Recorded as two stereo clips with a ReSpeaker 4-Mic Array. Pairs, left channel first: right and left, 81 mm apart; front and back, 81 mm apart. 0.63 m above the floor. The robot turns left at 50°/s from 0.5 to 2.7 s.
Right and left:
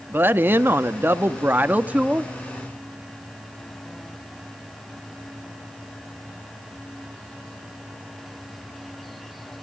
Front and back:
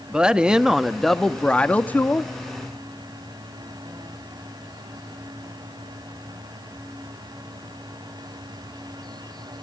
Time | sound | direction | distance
0.1 | a woman speaking | 110° left | 0.6 m